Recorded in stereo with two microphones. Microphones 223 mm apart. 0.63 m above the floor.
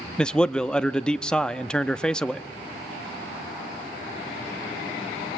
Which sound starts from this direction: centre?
A man speaking, at 0.2 s.